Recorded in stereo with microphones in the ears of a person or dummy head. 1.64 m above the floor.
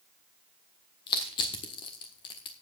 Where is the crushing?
25° left (ahead or behind), 1.3 m.